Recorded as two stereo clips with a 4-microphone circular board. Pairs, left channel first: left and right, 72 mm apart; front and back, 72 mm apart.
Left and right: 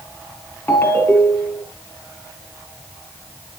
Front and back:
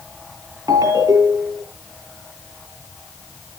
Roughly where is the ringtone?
Behind left.